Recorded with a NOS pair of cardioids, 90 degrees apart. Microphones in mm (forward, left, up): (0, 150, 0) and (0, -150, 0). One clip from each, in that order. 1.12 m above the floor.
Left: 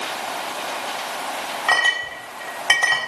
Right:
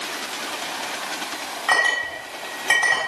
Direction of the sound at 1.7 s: 30° left.